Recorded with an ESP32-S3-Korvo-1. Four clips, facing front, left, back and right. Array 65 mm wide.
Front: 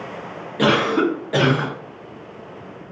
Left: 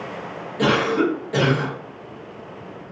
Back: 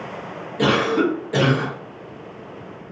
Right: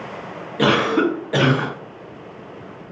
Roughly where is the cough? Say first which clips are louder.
Right 2 dB, front 1 dB; ahead right.